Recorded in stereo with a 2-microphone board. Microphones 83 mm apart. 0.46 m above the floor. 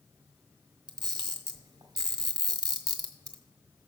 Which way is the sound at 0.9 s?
80° right.